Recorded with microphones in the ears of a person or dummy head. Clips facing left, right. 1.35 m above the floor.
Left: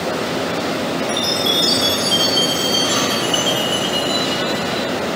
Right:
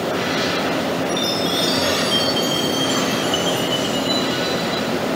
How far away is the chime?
About 0.9 m.